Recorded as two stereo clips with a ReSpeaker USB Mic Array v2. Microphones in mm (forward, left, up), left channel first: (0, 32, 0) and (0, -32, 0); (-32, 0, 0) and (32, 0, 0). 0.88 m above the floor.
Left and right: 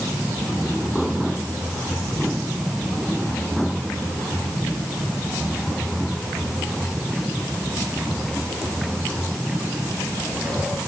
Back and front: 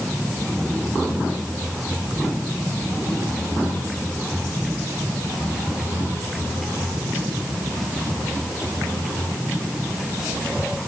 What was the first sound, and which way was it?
Only background noise.